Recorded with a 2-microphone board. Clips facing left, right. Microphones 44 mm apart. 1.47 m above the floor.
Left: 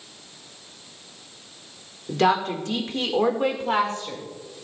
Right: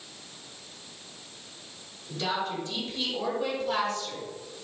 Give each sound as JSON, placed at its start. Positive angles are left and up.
{"t": 2.1, "sound": "a woman speaking", "side_deg": 80, "distance_m": 1.6}